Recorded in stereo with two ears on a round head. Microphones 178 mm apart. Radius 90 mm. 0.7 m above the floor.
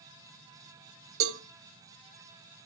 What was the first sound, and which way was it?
A cowbell, 80° right.